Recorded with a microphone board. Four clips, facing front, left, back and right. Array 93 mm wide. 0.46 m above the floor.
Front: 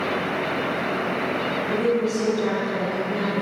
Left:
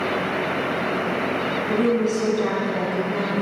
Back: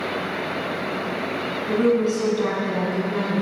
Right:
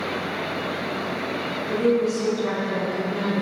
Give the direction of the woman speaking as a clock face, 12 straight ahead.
7 o'clock.